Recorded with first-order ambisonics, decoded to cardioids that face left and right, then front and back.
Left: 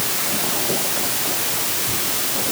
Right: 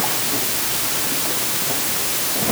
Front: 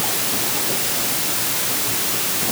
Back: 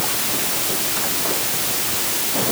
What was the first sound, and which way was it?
Only background noise.